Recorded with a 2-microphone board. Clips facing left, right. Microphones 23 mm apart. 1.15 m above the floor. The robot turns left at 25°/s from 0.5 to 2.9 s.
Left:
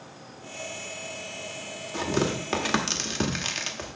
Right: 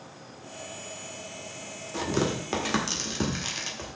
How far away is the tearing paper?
About 1.5 m.